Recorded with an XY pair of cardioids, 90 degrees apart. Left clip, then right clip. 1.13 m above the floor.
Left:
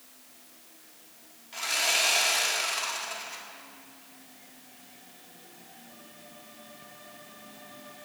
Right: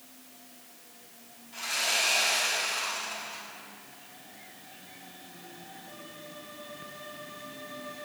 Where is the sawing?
60° left, 1.3 m.